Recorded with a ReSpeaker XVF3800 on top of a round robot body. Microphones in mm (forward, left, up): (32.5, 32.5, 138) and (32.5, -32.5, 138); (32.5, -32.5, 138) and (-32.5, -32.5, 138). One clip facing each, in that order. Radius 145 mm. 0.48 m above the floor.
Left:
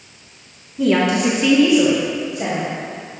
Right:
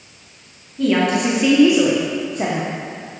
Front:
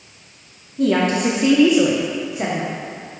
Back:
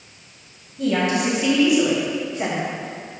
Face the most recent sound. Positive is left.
turn(degrees=-80)